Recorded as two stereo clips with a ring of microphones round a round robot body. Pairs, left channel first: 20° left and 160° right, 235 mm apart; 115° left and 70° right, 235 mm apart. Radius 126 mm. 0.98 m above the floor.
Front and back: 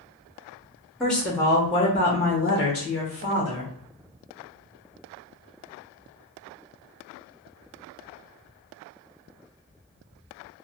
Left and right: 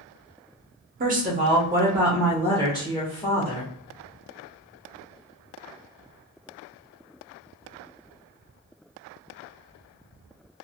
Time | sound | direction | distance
1.0 | a woman speaking | 65° right | 0.8 m